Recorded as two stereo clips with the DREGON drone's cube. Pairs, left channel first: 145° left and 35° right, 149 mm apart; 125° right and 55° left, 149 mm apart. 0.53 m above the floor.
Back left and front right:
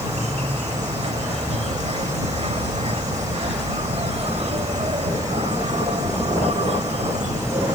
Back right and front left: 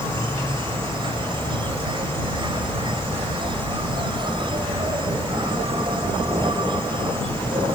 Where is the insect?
5° left.